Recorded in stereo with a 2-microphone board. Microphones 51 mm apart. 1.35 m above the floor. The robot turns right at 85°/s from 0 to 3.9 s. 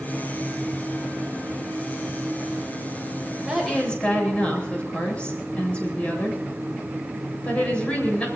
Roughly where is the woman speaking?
Ahead.